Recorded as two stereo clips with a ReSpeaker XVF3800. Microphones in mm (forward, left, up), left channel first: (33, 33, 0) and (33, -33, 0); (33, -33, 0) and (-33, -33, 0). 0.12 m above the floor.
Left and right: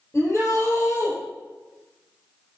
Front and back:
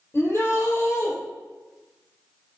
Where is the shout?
40° left, 2.5 m.